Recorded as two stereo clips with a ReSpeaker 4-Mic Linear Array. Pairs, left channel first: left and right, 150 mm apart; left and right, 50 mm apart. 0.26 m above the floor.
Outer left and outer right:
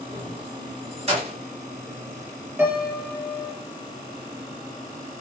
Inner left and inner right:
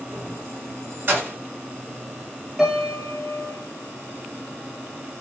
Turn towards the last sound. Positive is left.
turn(degrees=-15)  # may be behind; listen again after turning